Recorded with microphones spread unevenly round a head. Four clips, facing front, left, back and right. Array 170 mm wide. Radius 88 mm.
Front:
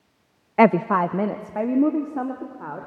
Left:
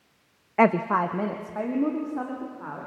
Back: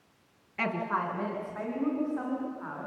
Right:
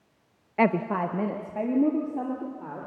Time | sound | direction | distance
0.6 | a woman speaking | 10° left | 0.5 m